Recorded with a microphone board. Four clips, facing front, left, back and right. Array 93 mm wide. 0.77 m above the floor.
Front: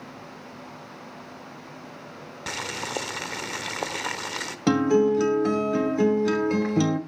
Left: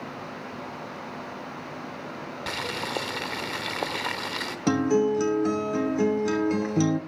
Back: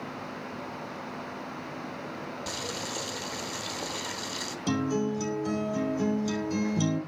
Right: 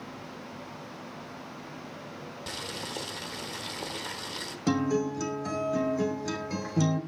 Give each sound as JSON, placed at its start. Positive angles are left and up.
{"t": 2.5, "sound": "boiling", "azimuth_deg": 40, "distance_m": 1.1}
{"t": 4.7, "sound": "a guitar", "azimuth_deg": 25, "distance_m": 2.5}